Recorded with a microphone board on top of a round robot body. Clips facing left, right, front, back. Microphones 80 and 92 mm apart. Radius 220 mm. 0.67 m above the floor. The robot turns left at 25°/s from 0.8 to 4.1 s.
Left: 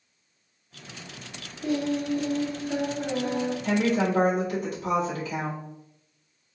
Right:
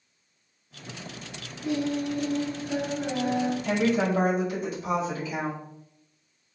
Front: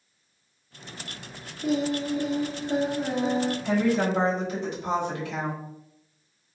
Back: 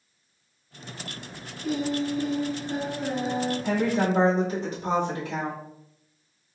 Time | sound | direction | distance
1.6 | singing | 40° left | 0.6 m
3.6 | a woman speaking | 145° left | 1.7 m